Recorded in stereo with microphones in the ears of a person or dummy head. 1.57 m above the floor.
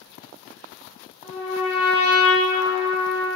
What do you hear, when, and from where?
1.2 s a trumpet: 5° right (ahead or behind), 1.5 m